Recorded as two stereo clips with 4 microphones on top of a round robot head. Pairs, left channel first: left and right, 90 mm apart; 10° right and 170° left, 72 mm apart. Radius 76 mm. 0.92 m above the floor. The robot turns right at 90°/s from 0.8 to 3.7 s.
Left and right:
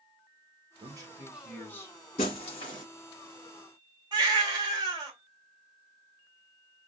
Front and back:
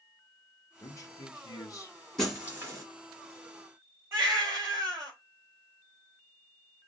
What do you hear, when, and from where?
0.8 s a man speaking: 60° right, 1.4 m; by 2.0 s 45° left, 1.4 m
2.2 s breaking glass: 75° left, 1.9 m; by 2.9 s 135° left, 1.9 m
4.1 s a baby crying: 135° right, 2.0 m